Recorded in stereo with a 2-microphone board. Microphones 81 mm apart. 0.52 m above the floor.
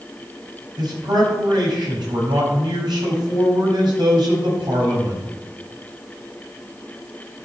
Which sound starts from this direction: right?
A man speaking, at 0.8 s.